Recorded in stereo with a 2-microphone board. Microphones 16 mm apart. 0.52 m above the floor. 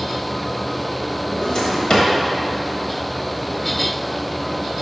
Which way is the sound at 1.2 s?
55° left (ahead or behind).